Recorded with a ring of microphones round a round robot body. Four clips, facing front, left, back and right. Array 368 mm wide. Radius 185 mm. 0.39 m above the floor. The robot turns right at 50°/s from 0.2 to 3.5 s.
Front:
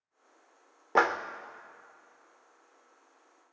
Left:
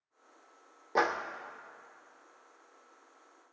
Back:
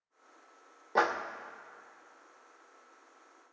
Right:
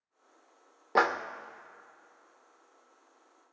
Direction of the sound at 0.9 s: 35° right.